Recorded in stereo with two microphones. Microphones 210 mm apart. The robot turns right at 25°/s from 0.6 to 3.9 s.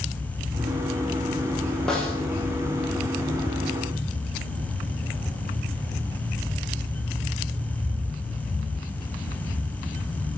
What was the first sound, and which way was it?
A snare drum, centre (ahead or behind).